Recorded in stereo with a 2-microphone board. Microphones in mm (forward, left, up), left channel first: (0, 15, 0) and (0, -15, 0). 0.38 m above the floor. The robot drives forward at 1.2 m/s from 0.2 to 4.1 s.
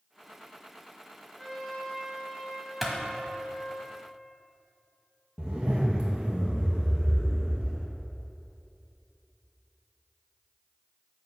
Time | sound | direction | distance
1.4 | a trumpet | 5° left (ahead or behind) | 1.3 m
2.8 | a clap | centre (ahead or behind) | 1.5 m
5.4 | a zipper | 30° right (ahead or behind) | 2 m